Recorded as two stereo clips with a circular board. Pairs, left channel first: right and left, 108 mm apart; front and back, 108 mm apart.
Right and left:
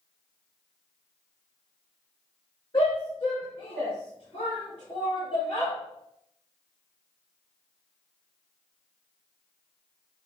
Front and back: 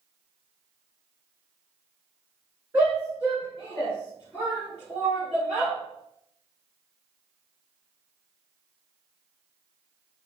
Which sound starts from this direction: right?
A shout, at 2.7 s.